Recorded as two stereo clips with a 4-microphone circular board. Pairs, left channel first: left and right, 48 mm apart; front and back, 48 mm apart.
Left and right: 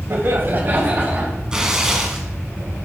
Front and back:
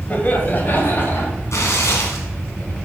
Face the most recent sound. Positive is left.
turn(degrees=-15)